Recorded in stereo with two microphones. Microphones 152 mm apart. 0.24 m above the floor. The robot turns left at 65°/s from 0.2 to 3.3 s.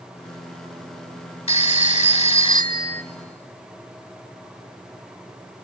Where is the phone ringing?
120° left, 0.8 m; by 3.0 s 15° left, 0.8 m.